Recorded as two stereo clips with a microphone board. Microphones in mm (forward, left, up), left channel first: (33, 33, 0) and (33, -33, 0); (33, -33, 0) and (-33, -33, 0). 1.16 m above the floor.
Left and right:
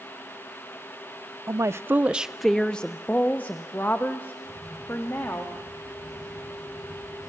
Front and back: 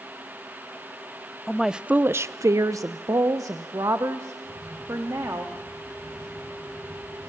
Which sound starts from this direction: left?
A camera shutter, at 4.4 s.